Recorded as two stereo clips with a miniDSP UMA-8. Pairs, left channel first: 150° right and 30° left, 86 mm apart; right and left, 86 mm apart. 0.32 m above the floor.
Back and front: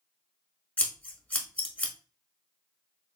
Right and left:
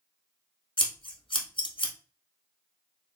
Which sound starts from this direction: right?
Scissors, at 0.8 s.